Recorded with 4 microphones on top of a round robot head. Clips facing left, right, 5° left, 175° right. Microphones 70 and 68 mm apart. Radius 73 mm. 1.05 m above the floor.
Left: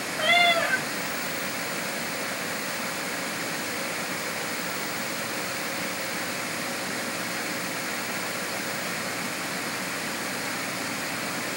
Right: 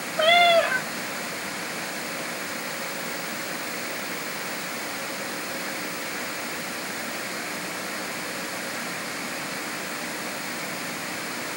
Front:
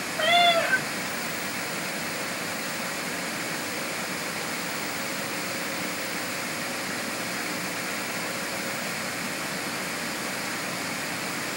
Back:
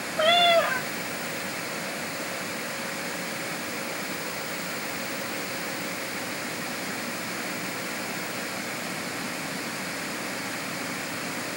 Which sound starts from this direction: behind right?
A cat meowing, at 0.2 s.